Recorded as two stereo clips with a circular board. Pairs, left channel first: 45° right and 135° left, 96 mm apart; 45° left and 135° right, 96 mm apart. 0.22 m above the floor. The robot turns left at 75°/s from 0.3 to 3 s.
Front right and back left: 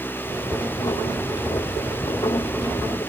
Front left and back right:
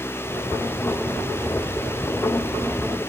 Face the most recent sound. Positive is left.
No sound to turn to.